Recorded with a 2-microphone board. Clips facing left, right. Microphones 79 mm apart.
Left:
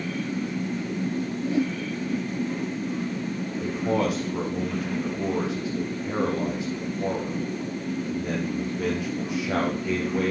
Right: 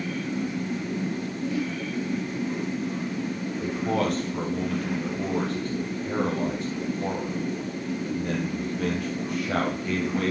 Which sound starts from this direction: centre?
A man speaking, at 3.6 s.